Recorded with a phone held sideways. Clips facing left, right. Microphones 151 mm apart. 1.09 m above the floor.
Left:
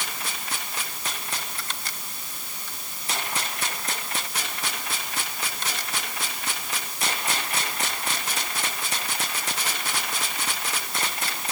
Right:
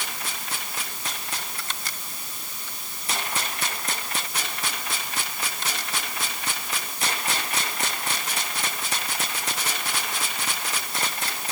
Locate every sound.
Only background noise.